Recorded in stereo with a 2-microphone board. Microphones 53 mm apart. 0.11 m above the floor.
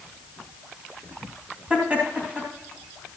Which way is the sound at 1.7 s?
25° right (ahead or behind).